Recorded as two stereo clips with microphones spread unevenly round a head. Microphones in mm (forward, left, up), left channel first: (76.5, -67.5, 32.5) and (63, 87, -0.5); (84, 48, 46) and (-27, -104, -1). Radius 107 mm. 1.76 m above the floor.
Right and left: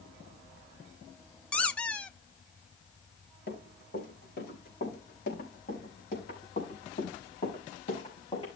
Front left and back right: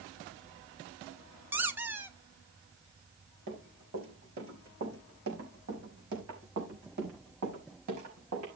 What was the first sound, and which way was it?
A squeak, 30° right.